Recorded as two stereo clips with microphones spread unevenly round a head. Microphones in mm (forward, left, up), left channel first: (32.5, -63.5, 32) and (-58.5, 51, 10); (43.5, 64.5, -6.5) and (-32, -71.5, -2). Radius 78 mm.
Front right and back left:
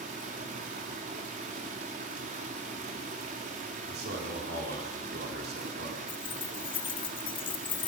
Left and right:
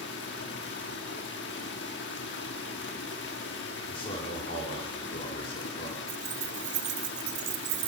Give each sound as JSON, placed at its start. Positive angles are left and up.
{"t": 0.0, "sound": "running water", "azimuth_deg": 85, "distance_m": 1.4}
{"t": 3.9, "sound": "a man speaking", "azimuth_deg": 120, "distance_m": 3.0}
{"t": 6.1, "sound": "keys jangling", "azimuth_deg": -105, "distance_m": 0.6}